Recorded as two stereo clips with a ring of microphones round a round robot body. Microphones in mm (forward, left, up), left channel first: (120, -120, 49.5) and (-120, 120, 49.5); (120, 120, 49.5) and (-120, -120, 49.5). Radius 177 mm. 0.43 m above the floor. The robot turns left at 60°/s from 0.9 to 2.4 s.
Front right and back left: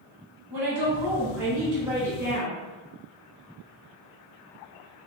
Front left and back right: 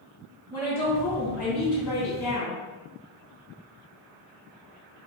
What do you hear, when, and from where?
0.5 s a woman speaking: 120° left, 1.7 m; by 2.6 s 30° left, 1.7 m